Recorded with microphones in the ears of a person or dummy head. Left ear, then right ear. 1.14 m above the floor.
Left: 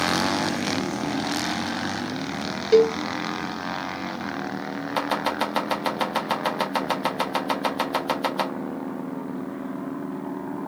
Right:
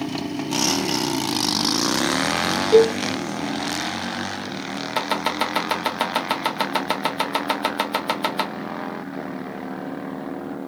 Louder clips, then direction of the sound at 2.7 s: Right 2 dB; 20° left (ahead or behind).